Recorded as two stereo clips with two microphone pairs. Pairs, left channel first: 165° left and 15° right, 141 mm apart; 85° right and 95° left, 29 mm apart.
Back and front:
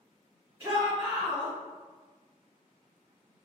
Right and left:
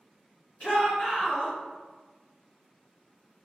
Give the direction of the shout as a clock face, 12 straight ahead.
3 o'clock.